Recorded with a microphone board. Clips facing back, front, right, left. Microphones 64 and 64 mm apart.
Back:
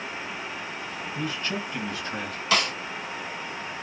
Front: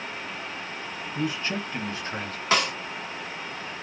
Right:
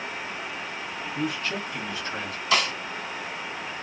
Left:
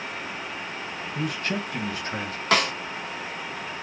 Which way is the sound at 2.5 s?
60° left.